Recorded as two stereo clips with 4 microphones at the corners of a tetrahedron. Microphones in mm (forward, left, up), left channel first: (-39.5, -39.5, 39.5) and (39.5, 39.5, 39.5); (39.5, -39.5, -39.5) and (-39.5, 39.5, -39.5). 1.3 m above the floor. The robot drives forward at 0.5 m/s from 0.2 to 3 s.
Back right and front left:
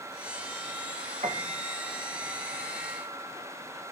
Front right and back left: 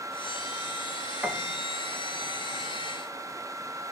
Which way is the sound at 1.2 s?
60° left.